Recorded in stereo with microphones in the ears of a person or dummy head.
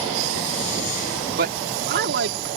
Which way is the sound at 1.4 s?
55° right (ahead or behind).